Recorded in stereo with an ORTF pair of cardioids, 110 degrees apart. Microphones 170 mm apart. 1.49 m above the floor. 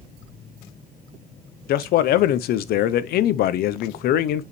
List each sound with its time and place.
1.7 s a man speaking: 70° left, 0.6 m